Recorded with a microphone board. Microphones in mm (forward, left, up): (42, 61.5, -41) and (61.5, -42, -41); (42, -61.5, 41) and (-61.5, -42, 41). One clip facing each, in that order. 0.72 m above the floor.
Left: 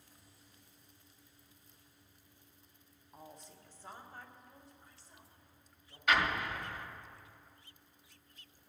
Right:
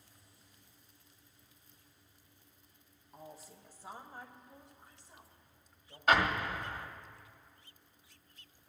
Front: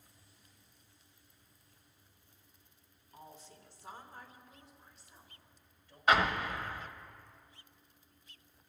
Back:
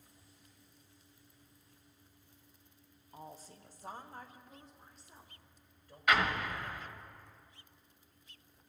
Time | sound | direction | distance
3.1 | a woman speaking | 175° right | 0.9 m
6.1 | an explosion | 60° right | 1.3 m